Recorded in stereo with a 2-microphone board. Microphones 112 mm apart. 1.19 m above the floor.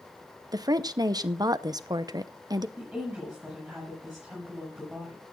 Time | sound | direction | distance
0.5 | a woman speaking | 35° right (ahead or behind) | 0.7 m
2.8 | a woman speaking | 5° right (ahead or behind) | 7.5 m